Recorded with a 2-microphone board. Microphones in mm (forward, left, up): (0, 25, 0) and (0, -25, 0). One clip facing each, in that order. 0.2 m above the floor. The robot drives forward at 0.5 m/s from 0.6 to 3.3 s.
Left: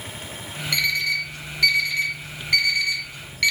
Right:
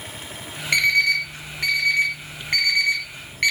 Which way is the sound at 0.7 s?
45° right (ahead or behind).